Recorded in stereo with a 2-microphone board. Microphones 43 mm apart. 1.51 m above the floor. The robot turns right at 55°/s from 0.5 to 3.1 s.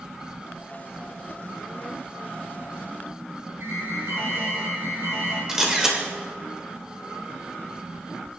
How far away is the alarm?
About 5.5 m.